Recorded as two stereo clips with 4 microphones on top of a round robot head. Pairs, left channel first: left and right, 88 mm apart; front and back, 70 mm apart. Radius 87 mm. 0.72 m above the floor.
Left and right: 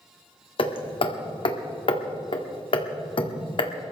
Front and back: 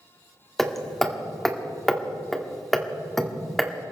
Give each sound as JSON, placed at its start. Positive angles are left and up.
{"t": 0.6, "sound": "hammering", "azimuth_deg": 90, "distance_m": 2.0}